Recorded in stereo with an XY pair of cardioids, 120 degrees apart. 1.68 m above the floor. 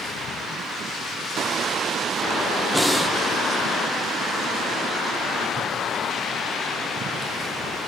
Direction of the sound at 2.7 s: 5° right.